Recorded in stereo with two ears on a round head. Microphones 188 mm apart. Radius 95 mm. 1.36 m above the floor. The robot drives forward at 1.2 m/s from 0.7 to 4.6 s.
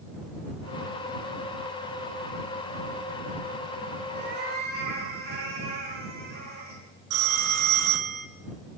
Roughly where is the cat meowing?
Right.